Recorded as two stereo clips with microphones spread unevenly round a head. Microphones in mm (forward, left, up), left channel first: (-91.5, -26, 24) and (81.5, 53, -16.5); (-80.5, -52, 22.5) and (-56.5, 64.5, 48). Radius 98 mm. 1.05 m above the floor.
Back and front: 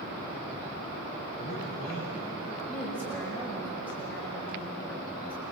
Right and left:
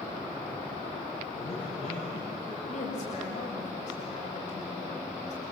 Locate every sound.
1.4 s a man speaking: 60° right, 8 m
2.7 s a woman speaking: 70° right, 6 m